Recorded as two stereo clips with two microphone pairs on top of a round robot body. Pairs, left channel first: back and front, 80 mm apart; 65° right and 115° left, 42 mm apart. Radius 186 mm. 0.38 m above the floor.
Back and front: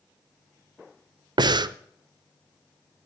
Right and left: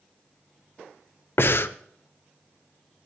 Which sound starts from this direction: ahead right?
Breathing, at 1.4 s.